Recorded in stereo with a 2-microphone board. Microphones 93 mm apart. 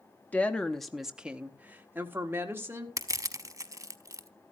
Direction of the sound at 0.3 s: 15° left (ahead or behind).